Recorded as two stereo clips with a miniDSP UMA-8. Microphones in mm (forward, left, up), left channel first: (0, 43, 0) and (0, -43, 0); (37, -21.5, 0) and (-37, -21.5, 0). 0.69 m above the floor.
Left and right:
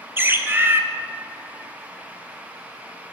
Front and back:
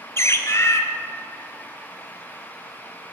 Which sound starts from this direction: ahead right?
A bird, at 0.2 s.